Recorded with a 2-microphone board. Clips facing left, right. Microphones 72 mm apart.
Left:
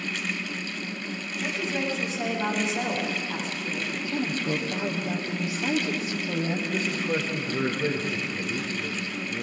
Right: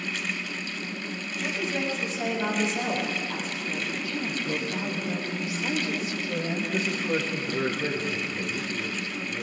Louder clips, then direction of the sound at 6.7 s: Right 2 dB; 5° left (ahead or behind).